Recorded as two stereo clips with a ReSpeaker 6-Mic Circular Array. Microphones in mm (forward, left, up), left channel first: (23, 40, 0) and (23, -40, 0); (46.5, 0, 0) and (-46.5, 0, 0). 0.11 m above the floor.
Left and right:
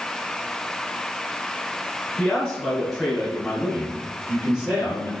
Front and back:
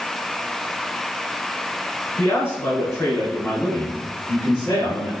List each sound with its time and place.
2.2 s a man speaking: 30° left, 1.9 m; by 5.1 s 25° right, 2.5 m